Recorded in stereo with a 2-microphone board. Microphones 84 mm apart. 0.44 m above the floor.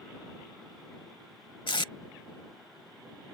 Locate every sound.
1.7 s tape being pulled: 70° left (ahead or behind)